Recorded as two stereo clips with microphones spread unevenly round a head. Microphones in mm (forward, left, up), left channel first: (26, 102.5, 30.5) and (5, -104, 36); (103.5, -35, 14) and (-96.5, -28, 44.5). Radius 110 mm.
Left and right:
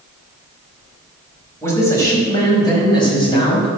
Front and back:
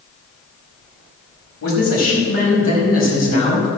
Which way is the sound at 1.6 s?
5° left.